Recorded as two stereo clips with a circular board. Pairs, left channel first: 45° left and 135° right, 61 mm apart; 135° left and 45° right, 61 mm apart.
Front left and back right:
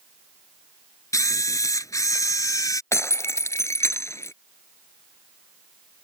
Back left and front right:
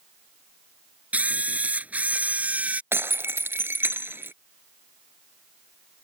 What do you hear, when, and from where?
1.1 s a camera shutter: 20° left
2.9 s breaking glass: 5° left